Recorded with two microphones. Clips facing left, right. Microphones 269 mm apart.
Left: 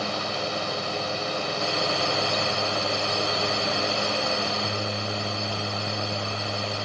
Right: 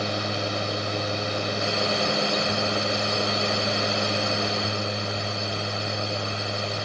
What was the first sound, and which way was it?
Only background noise.